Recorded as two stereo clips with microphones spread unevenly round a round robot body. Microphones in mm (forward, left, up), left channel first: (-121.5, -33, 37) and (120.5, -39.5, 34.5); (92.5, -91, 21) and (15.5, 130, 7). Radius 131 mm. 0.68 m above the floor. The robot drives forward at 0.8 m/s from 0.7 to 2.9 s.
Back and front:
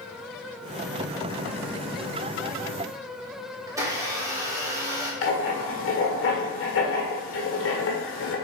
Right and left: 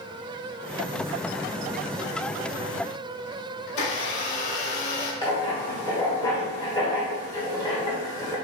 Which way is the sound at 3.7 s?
80° right.